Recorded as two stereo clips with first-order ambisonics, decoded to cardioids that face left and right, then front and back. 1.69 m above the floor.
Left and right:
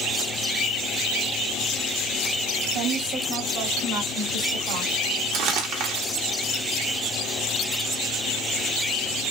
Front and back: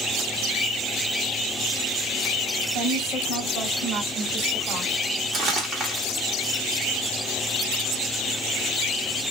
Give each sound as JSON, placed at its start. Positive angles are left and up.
{"t": 2.7, "sound": "a woman speaking", "azimuth_deg": -120, "distance_m": 4.5}
{"t": 5.3, "sound": "crumpling", "azimuth_deg": -105, "distance_m": 1.8}